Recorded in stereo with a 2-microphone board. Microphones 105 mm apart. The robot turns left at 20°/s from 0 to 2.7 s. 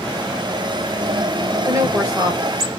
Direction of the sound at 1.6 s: 30° right (ahead or behind).